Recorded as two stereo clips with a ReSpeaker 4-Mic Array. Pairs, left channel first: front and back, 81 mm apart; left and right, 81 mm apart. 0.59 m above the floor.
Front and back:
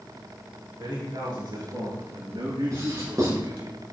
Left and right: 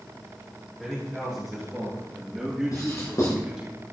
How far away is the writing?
About 5.5 m.